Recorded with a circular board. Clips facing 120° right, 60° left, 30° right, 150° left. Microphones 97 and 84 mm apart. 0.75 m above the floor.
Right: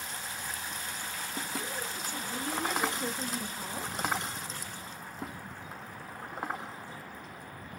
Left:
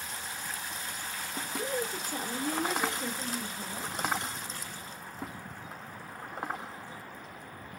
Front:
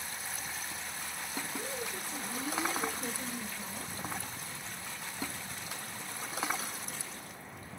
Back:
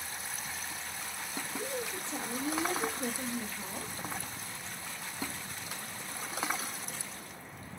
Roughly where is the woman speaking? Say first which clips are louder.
Left 4 dB, back 2 dB; left.